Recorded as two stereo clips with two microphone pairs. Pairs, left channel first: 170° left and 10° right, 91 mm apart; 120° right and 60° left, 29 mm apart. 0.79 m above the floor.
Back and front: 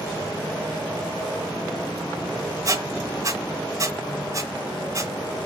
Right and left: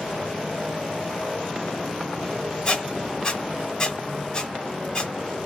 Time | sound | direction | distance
2.6 | a squeak | 65° right | 1.8 m